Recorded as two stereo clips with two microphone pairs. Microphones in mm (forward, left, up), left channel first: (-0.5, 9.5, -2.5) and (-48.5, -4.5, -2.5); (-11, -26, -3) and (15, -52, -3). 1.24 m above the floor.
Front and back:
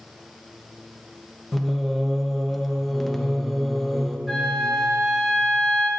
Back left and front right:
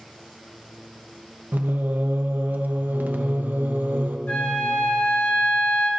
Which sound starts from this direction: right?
Singing, at 1.5 s.